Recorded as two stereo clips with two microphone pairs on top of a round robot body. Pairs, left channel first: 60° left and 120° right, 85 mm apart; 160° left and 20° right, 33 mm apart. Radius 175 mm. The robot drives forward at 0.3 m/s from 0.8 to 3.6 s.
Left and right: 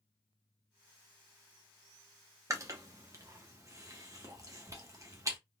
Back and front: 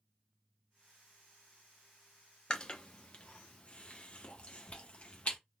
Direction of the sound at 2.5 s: 150° right.